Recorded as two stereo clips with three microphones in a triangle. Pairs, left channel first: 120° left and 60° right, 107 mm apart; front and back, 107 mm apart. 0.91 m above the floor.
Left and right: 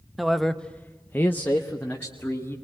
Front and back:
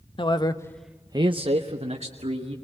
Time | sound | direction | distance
0.2 | a man speaking | 30° left | 1.2 m